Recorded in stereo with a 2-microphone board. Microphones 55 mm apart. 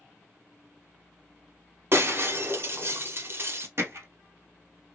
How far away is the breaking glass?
About 1.1 m.